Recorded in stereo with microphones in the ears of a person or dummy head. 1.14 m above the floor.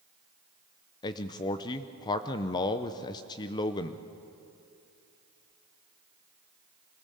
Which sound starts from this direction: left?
A man speaking, at 1.0 s.